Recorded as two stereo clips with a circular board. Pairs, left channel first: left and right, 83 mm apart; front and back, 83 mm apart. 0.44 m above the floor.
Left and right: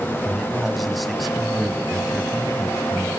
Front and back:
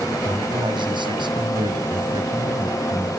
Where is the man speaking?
Straight behind, 2.5 m.